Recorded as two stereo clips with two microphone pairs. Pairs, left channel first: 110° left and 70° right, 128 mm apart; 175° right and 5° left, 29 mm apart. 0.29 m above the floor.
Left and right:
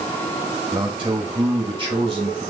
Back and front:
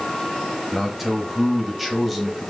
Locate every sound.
0.7 s a man speaking: 80° right, 1.4 m